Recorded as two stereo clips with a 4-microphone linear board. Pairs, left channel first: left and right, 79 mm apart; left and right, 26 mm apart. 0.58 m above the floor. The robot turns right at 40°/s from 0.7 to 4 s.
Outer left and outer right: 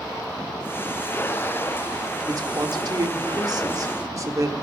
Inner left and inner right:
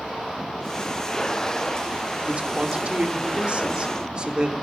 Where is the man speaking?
120° right, 1.0 m; by 4.5 s 50° right, 1.0 m.